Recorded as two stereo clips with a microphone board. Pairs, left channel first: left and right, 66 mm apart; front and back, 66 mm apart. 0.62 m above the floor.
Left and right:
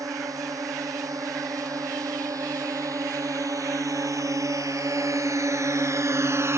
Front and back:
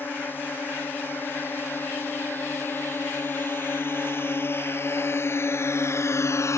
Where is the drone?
60° right; by 6.6 s 40° right.